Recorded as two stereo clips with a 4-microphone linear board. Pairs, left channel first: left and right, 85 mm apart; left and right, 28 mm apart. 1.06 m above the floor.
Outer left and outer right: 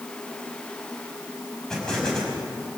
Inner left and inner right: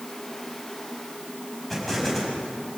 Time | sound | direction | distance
1.7 | an explosion | 10° left (ahead or behind) | 5.5 m